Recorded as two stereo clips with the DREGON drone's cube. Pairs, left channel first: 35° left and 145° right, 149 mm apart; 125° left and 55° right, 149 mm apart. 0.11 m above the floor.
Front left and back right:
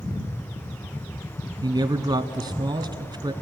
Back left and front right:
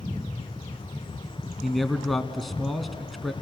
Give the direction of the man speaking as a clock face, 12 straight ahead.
5 o'clock.